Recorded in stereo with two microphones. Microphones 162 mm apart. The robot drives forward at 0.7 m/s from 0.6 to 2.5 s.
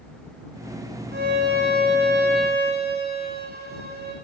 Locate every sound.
1.1 s a violin: 85° right, 6 m; by 4.2 s 75° right (ahead or behind), 6 m